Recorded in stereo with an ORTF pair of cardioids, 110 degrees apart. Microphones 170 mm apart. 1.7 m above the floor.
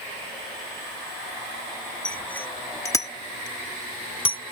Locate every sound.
2.0 s a bicycle bell: 5° left; by 4.5 s 35° left